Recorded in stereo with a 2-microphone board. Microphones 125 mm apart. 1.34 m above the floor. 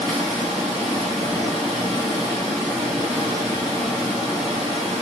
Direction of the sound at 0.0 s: Centre (ahead or behind).